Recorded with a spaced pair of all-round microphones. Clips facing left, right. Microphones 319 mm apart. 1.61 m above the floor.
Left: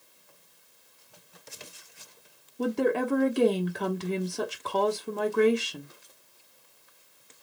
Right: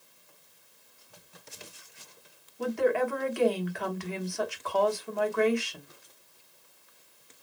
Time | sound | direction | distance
2.6 | a woman speaking | 45° left (ahead or behind) | 1.0 m